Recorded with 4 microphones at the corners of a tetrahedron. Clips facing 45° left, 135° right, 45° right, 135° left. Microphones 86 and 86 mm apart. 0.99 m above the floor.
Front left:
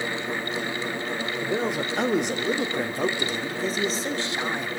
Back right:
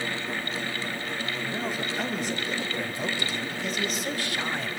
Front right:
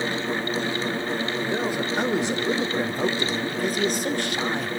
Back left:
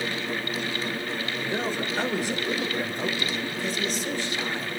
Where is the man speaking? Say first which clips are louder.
Front left 7 dB, front right 3 dB; 35° left, 3.5 m; by 4.7 s 30° right, 3 m.